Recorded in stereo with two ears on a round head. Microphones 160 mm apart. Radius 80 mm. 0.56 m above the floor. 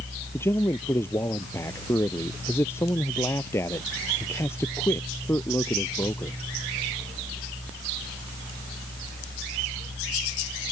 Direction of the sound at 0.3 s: 15° left (ahead or behind).